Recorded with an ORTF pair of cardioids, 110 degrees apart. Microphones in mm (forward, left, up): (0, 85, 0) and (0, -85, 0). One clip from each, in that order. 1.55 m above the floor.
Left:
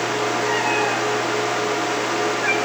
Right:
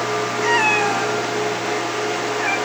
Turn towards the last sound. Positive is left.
turn(degrees=-20)